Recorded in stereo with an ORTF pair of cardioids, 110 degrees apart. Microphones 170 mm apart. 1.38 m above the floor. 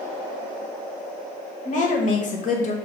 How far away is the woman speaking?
About 1.1 m.